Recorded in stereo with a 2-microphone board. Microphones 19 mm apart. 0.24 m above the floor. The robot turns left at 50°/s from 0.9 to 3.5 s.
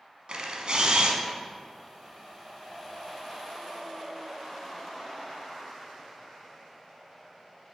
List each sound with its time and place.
0.3 s a camera shutter: 55° right (ahead or behind), 1.0 m; by 1.2 s 60° right (ahead or behind), 1.0 m